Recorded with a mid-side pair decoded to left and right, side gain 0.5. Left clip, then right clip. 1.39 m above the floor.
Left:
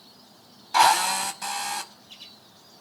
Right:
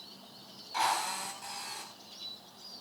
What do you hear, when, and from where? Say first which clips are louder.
0.7 s a drill: left 12 dB; 70° left, 4.5 m